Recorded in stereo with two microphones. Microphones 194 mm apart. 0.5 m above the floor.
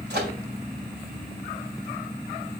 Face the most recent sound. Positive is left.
turn(degrees=-65)  # may be behind; listen again after turning